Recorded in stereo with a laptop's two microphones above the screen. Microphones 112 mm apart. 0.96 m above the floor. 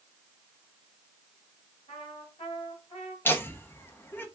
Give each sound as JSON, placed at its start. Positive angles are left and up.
{"t": 1.9, "sound": "a trumpet", "side_deg": 65, "distance_m": 2.5}
{"t": 3.2, "sound": "laughter", "side_deg": 20, "distance_m": 0.7}